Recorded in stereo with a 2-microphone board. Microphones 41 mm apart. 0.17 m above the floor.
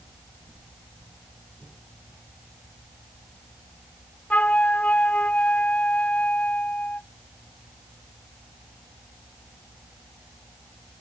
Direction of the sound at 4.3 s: 35° left (ahead or behind).